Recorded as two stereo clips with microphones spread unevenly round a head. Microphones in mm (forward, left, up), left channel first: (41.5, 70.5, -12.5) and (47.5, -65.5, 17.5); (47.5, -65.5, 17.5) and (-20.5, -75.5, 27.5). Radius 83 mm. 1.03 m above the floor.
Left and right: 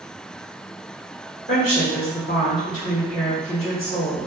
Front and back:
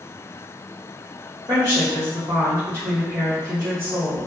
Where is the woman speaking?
120° left, 1.1 m.